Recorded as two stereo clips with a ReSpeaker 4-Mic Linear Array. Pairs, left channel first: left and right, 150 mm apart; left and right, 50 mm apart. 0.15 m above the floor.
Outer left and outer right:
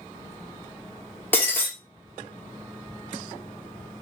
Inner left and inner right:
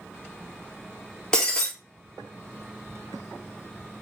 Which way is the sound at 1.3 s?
15° left (ahead or behind).